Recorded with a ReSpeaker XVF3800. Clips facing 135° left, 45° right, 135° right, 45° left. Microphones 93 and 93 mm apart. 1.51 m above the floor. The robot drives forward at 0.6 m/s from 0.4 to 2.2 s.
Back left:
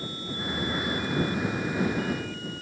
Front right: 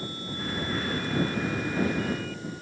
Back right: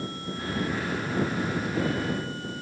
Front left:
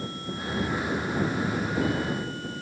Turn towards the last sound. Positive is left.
No sound to turn to.